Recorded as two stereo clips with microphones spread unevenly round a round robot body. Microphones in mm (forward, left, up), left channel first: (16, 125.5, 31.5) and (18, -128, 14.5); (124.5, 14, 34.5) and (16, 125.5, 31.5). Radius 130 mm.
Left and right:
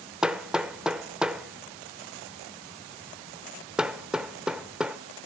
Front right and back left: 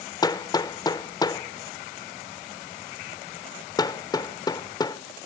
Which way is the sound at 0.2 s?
15° right.